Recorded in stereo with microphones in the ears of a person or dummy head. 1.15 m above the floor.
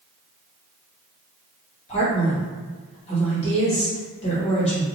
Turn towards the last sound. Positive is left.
turn(degrees=35)  # may be behind; listen again after turning